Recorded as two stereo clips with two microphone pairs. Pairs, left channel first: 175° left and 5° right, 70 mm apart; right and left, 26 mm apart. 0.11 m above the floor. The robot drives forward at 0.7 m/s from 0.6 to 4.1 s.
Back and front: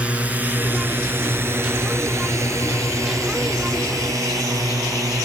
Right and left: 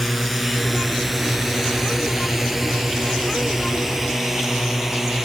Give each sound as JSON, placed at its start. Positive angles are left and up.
{"t": 0.0, "sound": "a drone", "azimuth_deg": 5}